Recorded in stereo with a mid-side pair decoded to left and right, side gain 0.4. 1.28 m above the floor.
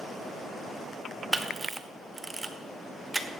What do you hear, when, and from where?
1.3 s a camera shutter: 20° right, 1.0 m